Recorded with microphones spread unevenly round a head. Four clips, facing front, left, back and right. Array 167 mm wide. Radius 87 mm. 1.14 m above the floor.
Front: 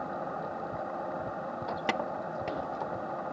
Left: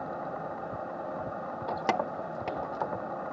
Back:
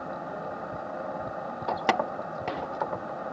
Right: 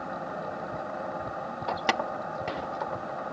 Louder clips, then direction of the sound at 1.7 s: Right 1 dB, back 7 dB; 165° left.